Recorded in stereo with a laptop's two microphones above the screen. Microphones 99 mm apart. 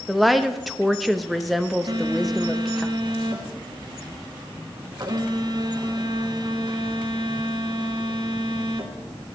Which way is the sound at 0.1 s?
Centre (ahead or behind).